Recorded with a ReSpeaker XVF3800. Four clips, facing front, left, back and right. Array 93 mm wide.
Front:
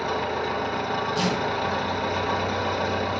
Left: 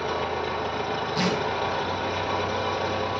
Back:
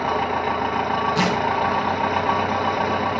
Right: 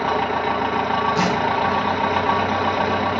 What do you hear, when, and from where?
0.0 s an engine running: 130° right, 1.6 m
1.1 s tearing paper: 170° right, 2.5 m